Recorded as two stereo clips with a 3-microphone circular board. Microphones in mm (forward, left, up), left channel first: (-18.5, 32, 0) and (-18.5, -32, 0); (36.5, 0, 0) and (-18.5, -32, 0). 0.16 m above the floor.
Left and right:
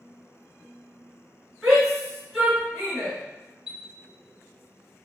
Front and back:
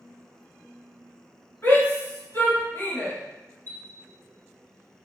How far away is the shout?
About 2.0 m.